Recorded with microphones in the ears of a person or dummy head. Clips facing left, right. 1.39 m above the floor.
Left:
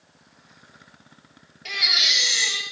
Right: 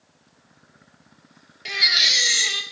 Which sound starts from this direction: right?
A baby crying, at 1.6 s.